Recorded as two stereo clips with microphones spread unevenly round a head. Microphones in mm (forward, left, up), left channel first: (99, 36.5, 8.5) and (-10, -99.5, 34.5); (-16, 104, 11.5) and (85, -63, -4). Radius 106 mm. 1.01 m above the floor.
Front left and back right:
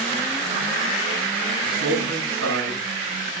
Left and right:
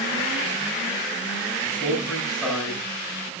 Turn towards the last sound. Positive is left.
turn(degrees=-155)